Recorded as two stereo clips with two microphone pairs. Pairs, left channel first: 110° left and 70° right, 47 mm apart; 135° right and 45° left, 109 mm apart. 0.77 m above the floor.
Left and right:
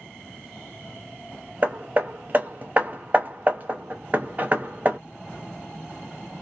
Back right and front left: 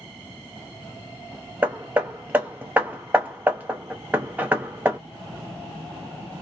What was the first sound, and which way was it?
Hammering, 25° right.